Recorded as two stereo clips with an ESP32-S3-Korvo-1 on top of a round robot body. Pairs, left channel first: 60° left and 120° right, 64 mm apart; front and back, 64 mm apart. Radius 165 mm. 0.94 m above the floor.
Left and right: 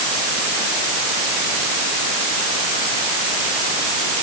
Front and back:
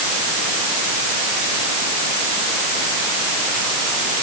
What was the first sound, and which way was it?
Only background noise.